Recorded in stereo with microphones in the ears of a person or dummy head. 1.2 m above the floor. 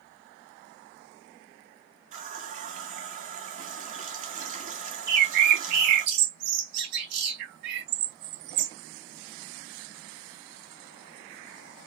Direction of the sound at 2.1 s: 50° right (ahead or behind).